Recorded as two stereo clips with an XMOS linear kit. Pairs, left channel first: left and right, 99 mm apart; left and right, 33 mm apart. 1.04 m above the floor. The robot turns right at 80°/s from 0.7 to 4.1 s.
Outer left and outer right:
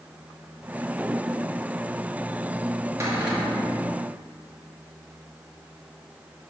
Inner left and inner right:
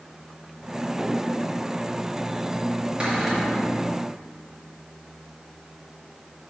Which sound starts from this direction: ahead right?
A cupboard door, at 3.0 s.